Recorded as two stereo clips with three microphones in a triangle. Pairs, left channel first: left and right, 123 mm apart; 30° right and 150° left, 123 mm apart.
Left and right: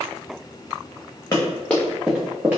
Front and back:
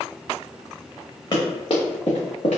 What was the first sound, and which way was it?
Running footsteps, 20° left.